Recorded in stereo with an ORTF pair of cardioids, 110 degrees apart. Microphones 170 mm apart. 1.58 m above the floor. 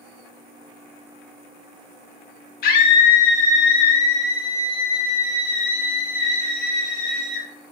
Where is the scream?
70° left, 1.9 m; by 7.5 s 75° left, 6 m.